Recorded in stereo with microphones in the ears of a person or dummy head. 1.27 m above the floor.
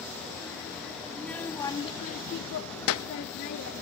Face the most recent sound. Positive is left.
turn(degrees=55)  # may be behind; listen again after turning